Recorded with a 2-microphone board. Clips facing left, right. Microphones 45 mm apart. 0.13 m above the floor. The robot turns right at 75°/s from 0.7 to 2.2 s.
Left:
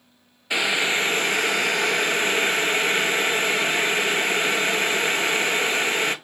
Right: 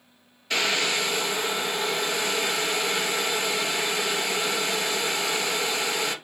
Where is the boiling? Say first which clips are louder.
Left 3 dB; 20° left, 0.5 m; by 6.2 s 130° left, 0.5 m.